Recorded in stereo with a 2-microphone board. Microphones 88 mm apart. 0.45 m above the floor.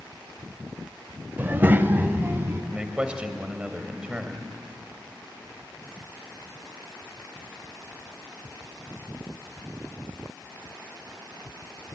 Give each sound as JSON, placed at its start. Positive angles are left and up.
{"t": 1.4, "sound": "a child speaking", "side_deg": -25, "distance_m": 0.7}
{"t": 2.7, "sound": "a man speaking", "side_deg": -15, "distance_m": 2.5}